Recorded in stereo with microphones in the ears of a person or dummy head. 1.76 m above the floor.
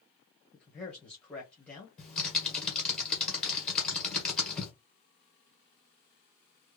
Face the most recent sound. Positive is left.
turn(degrees=0)  # may be behind; listen again after turning